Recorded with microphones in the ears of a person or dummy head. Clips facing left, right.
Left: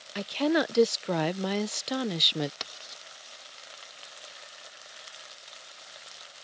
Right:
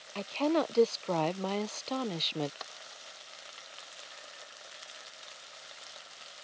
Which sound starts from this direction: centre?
A woman speaking, at 0.1 s.